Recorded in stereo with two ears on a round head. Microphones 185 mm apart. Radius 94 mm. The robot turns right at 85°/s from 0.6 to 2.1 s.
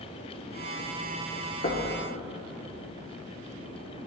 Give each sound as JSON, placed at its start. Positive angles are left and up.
{"t": 1.6, "sound": "knocking", "side_deg": 40, "distance_m": 1.2}